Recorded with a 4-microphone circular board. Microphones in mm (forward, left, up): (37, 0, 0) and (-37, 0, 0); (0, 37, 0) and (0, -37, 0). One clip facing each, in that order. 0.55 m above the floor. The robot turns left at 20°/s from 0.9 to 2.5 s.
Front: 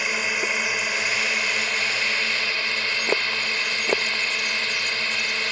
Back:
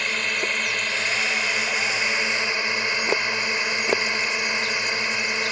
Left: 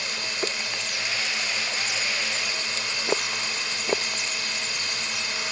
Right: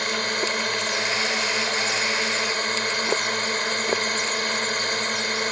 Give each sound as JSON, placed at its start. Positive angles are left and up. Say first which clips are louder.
{"t": 0.0, "sound": "a drone", "louder": "front 1 dB, right 5 dB", "azimuth_deg": -80}